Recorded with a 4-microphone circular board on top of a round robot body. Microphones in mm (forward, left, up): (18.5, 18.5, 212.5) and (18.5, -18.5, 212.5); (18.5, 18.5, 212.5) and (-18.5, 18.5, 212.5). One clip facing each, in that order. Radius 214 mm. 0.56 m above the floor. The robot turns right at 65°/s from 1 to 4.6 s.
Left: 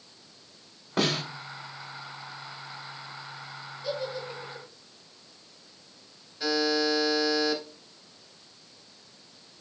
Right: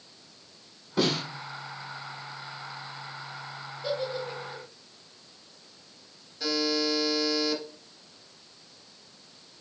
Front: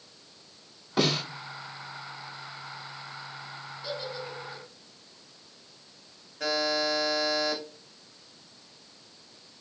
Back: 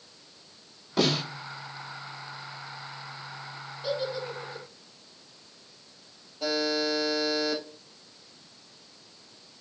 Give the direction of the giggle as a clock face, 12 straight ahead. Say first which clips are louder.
Right 2 dB, back 6 dB; 4 o'clock.